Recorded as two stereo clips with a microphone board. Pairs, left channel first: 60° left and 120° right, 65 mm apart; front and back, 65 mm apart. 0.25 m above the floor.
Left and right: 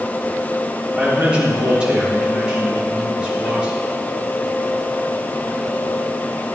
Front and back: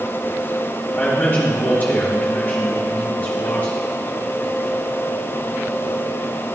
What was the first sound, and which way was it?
A man speaking, 50° right.